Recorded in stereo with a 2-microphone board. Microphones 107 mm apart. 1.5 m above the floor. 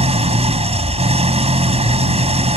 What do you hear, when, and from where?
0.0 s an engine running: 75° right (ahead or behind)